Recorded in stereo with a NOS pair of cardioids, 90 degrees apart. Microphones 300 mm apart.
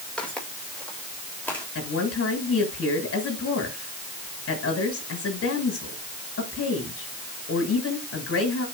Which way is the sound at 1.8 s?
50° left.